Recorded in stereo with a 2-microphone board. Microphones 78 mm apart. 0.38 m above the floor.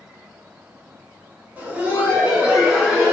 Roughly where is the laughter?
Right.